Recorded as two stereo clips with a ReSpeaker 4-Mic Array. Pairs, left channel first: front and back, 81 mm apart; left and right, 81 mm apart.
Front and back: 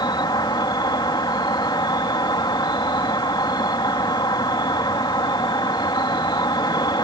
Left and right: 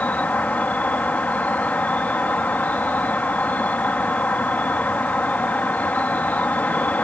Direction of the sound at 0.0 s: 20° left.